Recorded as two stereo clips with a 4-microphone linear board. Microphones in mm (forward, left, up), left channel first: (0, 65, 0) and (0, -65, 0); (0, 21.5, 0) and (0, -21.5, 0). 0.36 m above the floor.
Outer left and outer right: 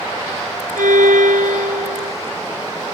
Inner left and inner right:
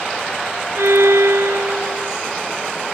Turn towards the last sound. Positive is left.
turn(degrees=-85)